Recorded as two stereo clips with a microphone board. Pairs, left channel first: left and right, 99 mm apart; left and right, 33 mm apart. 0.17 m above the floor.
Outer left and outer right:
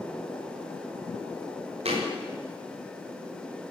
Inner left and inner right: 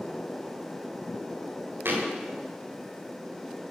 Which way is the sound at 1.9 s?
80° right.